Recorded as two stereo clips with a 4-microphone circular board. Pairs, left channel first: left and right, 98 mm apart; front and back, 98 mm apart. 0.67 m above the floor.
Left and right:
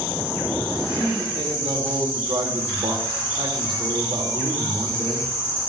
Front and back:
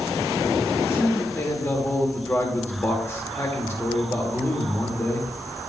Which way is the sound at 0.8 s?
60° right.